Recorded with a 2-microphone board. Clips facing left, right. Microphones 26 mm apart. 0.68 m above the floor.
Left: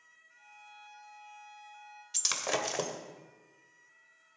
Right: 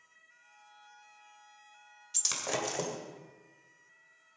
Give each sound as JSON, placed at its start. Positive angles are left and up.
{"t": 0.3, "sound": "a violin", "side_deg": 60, "distance_m": 4.5}
{"t": 2.1, "sound": "breaking glass", "side_deg": 15, "distance_m": 1.7}